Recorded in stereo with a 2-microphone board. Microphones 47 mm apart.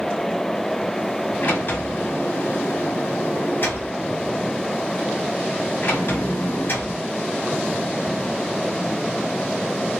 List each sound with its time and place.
1.4 s a sliding door: 45° left (ahead or behind), 1.6 m